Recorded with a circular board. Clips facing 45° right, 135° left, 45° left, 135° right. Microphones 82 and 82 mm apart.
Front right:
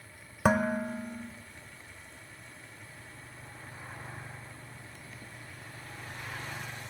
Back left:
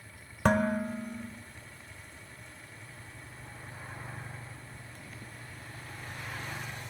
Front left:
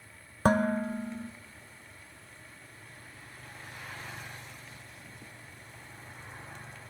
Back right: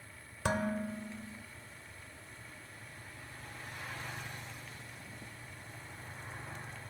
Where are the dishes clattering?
35° left, 0.6 m.